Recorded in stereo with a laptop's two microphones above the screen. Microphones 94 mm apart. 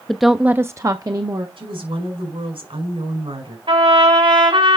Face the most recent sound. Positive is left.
turn(degrees=-70)  # may be behind; listen again after turning